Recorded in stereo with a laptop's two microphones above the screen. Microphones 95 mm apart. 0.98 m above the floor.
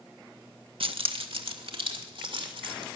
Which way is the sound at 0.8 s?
70° right (ahead or behind).